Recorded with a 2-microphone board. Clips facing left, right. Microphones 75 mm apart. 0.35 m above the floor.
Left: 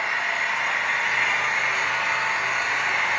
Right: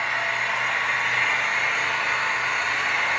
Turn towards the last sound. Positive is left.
turn(degrees=5)  # may be behind; listen again after turning